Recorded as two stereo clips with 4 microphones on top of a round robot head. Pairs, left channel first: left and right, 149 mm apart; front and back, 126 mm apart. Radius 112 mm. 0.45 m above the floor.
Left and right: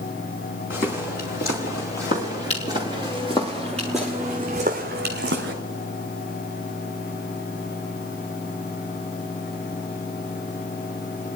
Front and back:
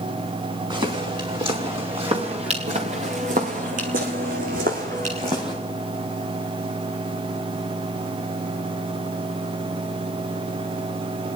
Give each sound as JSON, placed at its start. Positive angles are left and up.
{"t": 0.7, "sound": "footsteps", "azimuth_deg": 135, "distance_m": 6.0}